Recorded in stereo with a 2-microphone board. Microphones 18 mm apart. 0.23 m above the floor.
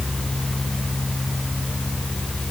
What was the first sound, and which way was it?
Only background noise.